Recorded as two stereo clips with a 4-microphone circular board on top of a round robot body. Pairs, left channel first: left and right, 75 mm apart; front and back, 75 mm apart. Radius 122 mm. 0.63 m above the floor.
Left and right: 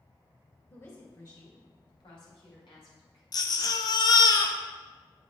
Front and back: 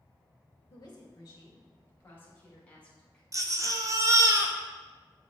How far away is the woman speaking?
About 3 m.